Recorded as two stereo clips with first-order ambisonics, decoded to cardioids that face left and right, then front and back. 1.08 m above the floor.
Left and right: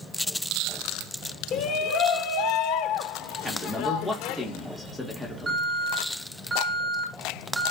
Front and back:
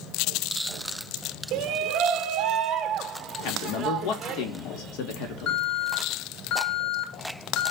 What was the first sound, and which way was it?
A shout, 135° left.